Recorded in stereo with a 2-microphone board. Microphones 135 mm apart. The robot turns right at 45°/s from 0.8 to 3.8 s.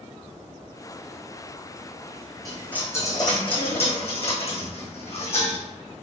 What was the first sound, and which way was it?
A dropped coin, straight ahead.